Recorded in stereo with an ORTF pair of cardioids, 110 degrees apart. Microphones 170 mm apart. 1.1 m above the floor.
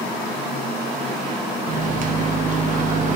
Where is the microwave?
50° right, 0.9 m.